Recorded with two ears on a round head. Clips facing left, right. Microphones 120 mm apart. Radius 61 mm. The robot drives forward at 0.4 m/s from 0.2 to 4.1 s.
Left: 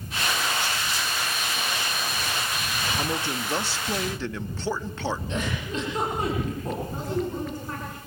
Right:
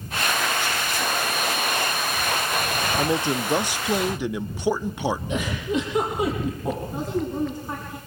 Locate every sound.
3.0 s a man speaking: 20° right (ahead or behind), 0.5 m; by 5.2 s 15° right (ahead or behind), 0.7 m
5.3 s a giggle: 10° right (ahead or behind), 9 m
6.9 s a woman speaking: 15° right (ahead or behind), 7.5 m